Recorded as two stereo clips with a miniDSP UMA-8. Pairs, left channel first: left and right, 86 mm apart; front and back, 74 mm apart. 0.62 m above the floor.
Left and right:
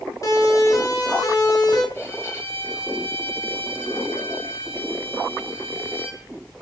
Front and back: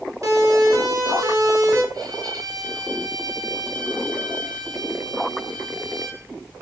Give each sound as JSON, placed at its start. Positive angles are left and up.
{"t": 0.2, "sound": "a siren", "azimuth_deg": 140, "distance_m": 9.0}
{"t": 1.9, "sound": "a violin", "azimuth_deg": 150, "distance_m": 6.0}